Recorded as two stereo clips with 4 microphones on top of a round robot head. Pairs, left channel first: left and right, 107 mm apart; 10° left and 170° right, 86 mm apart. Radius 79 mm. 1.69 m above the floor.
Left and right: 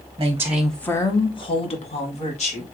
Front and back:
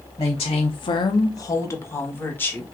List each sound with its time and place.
0.2 s a woman speaking: 35° right, 0.8 m; by 2.6 s 75° left, 2.0 m